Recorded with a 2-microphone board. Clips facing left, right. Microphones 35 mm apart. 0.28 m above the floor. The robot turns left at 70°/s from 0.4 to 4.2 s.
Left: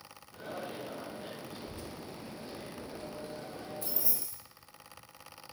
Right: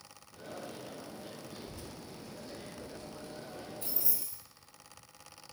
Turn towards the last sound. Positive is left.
turn(degrees=-60)  # may be behind; listen again after turning